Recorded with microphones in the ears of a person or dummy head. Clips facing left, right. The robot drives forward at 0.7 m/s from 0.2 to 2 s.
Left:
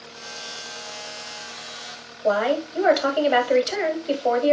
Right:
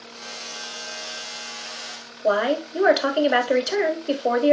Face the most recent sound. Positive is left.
turn(degrees=-10)  # may be behind; listen again after turning